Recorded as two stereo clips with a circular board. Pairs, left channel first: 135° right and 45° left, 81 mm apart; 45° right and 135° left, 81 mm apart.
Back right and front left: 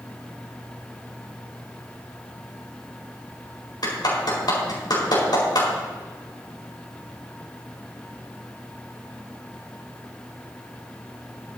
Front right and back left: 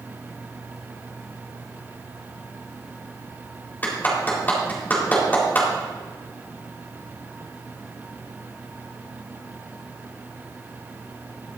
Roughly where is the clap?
Right.